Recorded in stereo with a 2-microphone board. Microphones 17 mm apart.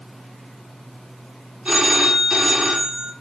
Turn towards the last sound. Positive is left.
turn(degrees=-45)  # may be behind; listen again after turning